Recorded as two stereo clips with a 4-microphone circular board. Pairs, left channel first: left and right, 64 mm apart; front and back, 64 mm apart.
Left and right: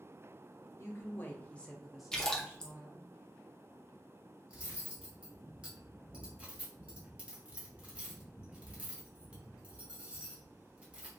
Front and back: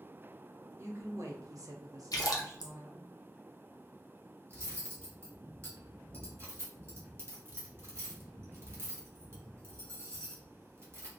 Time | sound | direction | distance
0.8 | a woman speaking | 140° left | 0.9 m
2.1 | a splash | 10° left | 0.6 m
4.5 | cutlery clinking | 155° right | 0.9 m